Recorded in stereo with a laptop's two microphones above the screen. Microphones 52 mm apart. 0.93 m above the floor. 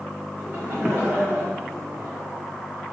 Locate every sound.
0.4 s laughter: 40° right (ahead or behind), 3.5 m